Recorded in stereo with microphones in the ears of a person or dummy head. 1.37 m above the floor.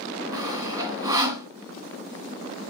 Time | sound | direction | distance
0.3 | sawing | 20° right (ahead or behind) | 2.5 m